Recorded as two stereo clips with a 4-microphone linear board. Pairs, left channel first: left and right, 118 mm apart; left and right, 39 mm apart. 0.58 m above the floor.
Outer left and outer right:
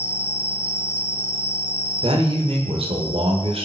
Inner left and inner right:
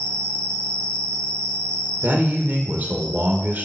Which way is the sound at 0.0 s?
20° left (ahead or behind).